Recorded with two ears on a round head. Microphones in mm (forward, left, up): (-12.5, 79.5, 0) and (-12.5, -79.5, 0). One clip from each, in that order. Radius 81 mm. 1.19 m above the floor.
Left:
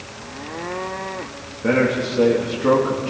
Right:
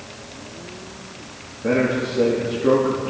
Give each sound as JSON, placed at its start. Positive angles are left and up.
{"t": 1.6, "sound": "a man speaking", "side_deg": 65, "distance_m": 2.5}